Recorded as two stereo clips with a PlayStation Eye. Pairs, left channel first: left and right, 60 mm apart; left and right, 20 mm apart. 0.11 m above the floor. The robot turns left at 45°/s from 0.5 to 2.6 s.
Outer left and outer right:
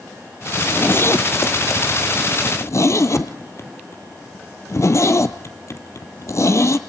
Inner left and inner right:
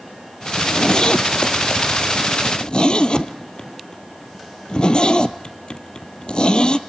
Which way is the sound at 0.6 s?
25° left (ahead or behind).